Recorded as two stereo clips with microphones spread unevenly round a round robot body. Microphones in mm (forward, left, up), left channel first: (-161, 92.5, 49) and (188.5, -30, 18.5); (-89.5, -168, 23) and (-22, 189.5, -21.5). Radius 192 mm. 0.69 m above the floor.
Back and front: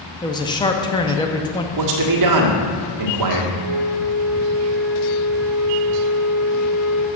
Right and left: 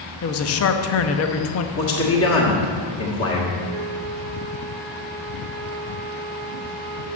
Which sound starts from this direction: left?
A flute, at 3.6 s.